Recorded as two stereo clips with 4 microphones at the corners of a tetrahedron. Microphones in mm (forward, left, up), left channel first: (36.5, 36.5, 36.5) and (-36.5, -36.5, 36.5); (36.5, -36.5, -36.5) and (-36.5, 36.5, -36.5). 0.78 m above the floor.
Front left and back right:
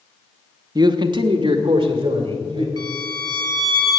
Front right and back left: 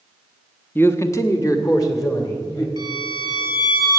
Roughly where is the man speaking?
Right.